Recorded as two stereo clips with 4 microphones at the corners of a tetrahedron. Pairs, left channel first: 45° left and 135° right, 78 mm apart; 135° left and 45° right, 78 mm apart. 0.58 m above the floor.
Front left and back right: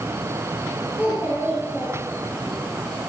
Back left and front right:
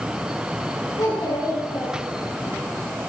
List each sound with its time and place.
1.0 s a child speaking: 160° left, 6.5 m